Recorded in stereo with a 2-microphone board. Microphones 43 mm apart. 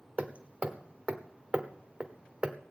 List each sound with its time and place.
0.2 s hammering: 30° right (ahead or behind), 1.2 m